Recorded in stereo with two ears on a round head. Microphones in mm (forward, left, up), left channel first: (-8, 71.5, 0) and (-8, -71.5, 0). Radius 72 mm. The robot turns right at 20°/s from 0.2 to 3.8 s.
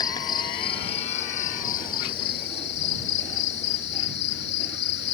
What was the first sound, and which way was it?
An insect, 25° left.